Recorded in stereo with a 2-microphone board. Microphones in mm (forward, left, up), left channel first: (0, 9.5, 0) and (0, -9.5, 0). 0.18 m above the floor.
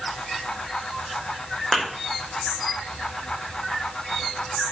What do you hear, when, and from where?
1.7 s a thud: 25° left (ahead or behind), 1.9 m